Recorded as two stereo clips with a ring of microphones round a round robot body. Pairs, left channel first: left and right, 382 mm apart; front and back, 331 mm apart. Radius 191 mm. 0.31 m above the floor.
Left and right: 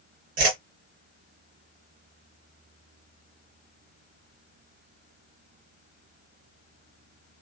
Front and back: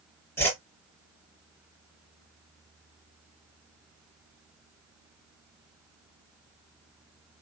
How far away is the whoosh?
About 2 m.